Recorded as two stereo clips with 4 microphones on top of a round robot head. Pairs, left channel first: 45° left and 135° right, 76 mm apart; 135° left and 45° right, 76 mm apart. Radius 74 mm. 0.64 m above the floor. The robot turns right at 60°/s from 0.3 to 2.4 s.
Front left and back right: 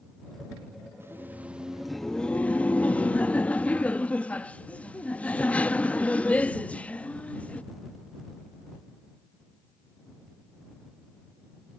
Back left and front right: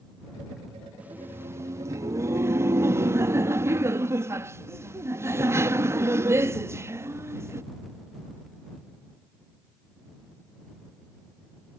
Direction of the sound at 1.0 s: 105° right.